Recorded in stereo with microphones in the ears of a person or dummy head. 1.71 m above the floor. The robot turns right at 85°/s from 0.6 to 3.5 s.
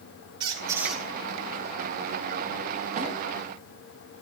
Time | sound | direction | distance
0.4 | a squeak | 30° right | 2 m
3.0 | a snare drum | 40° right (ahead or behind) | 3.5 m